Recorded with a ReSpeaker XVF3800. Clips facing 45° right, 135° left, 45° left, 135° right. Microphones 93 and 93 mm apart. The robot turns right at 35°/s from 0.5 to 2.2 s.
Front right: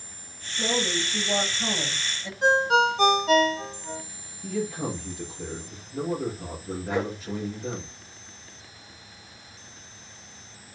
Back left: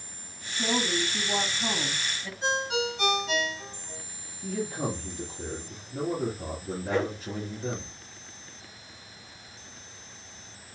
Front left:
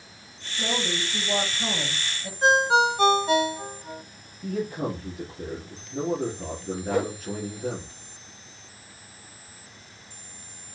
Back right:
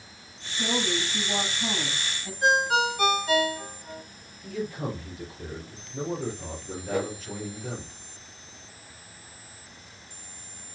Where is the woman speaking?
15° right, 6.5 m; by 2.3 s 45° left, 6.5 m.